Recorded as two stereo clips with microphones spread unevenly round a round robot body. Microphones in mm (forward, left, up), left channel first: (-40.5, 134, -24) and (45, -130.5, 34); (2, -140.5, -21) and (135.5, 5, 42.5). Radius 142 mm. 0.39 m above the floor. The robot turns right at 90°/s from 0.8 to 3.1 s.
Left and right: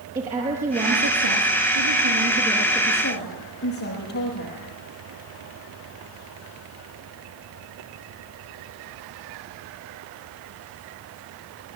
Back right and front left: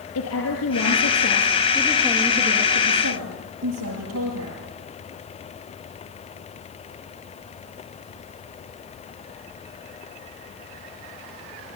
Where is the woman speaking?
140° right, 7.5 m; by 4.6 s 65° left, 7.5 m.